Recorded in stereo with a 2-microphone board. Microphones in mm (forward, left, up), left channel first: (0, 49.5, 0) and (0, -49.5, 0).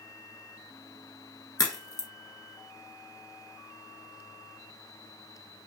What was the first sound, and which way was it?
A crack, 40° left (ahead or behind).